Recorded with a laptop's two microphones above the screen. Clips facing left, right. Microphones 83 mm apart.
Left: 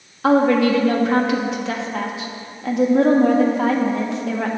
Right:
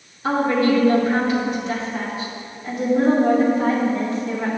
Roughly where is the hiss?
No hiss in this recording.